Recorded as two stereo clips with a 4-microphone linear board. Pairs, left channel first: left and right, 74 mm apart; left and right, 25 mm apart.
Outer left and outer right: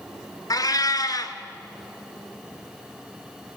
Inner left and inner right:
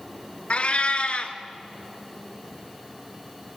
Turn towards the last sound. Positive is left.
turn(degrees=55)  # may be behind; listen again after turning